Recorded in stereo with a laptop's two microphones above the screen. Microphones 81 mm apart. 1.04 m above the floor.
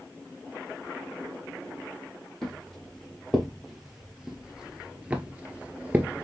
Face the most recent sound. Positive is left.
turn(degrees=-20)  # may be behind; listen again after turning